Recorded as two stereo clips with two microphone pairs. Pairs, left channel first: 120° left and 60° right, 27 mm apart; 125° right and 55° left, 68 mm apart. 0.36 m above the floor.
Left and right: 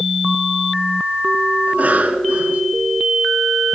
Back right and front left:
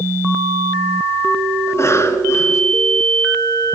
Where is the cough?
80° right, 3.5 m.